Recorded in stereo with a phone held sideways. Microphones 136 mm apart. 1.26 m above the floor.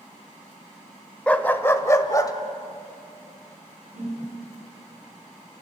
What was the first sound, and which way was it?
A dog barking, 10° left (ahead or behind).